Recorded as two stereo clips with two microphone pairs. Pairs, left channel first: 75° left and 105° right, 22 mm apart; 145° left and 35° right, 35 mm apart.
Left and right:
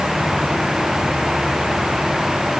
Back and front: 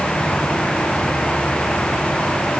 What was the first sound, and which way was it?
Only background noise.